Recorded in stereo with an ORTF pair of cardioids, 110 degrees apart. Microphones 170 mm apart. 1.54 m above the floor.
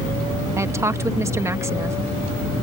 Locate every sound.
0.6 s a woman speaking: 15° right